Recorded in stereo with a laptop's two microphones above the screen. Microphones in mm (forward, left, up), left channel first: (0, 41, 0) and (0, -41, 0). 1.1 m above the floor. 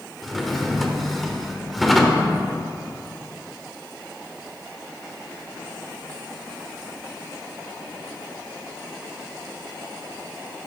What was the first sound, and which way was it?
A drawer, centre (ahead or behind).